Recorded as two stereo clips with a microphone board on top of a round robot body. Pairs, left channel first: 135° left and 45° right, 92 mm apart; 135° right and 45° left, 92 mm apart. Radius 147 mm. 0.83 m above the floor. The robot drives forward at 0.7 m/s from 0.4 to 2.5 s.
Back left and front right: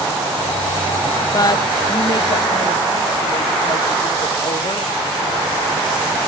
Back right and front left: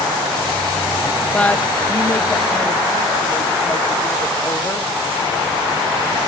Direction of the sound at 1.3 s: 155° left.